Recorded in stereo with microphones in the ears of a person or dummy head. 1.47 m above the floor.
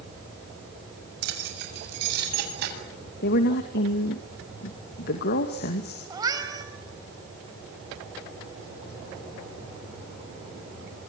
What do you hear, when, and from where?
1.2 s keys jangling: 65° right (ahead or behind), 7 m; by 2.8 s 60° right (ahead or behind), 8 m
3.2 s a woman speaking: 50° left (ahead or behind), 2.5 m
6.1 s a cat meowing: 20° right (ahead or behind), 5 m